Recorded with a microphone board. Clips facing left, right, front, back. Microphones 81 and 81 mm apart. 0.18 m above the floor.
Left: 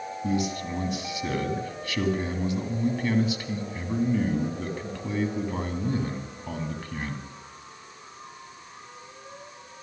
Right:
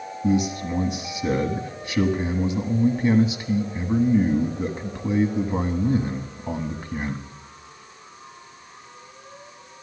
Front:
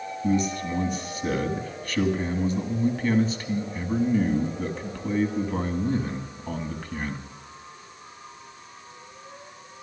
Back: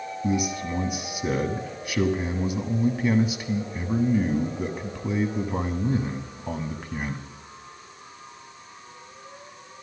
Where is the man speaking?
120° right, 1.3 m.